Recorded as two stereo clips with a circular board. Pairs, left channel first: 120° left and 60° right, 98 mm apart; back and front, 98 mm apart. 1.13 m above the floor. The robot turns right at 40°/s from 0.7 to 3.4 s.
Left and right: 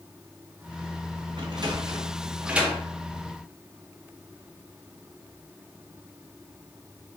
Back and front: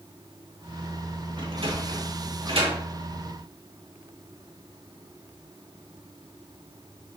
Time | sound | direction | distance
1.4 | a sliding door | 30° right | 1.8 m